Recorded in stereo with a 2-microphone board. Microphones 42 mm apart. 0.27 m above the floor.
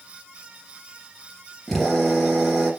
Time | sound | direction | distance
1.7 | a drill | 5° left (ahead or behind) | 4.5 m